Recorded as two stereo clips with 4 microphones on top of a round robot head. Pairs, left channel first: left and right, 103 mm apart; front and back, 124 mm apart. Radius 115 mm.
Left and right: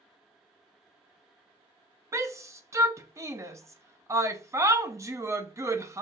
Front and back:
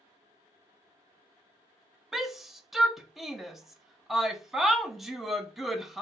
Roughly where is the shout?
Right.